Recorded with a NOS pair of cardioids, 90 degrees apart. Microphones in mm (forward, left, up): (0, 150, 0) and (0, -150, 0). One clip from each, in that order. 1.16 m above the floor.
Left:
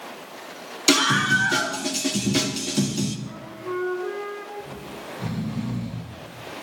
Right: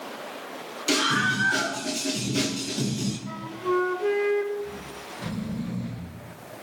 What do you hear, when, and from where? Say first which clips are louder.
0.9 s a scream: left 4 dB; 60° left, 8.5 m; by 3.2 s 75° left, 8.5 m
3.3 s a flute: right 5 dB; 65° right, 5.5 m
4.6 s snoring: even; 60° left, 7.5 m